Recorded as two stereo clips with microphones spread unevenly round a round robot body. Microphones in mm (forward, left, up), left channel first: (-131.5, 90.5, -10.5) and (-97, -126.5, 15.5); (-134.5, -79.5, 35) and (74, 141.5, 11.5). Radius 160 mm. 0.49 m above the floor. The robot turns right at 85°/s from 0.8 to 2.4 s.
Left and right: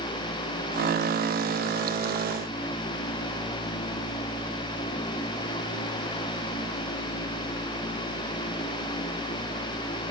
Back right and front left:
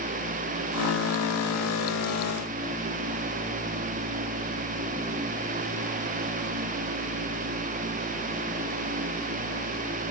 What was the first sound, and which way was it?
Only background noise.